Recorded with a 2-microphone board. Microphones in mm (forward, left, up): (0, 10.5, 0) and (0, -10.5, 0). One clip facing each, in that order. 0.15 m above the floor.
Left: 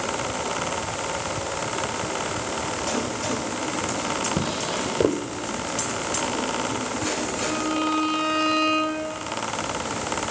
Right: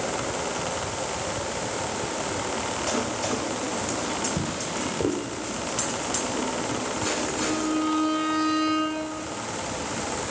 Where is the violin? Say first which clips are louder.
Left 1 dB; 15° left (ahead or behind), 2 m.